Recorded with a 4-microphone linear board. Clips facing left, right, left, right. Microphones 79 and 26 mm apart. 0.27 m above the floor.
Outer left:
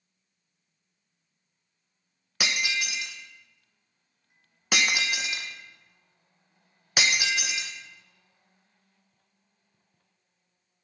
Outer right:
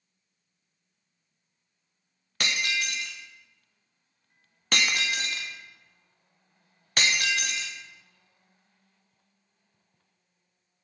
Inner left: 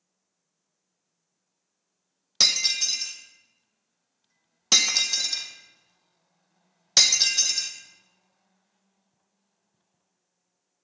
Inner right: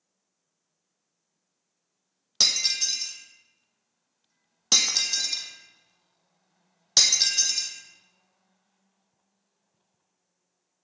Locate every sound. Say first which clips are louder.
2.4 s breaking glass: even, inner left 1 dB; 10° left (ahead or behind), 1.1 m